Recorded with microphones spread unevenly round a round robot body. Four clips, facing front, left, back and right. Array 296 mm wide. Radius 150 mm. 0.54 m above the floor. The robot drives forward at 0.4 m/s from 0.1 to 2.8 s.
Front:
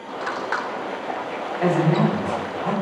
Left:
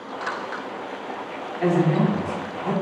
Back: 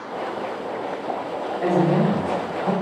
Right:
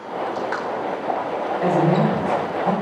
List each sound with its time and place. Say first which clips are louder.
1.6 s a man speaking: right 1 dB, even; 55° left, 1.3 m; by 2.7 s 95° left, 1.2 m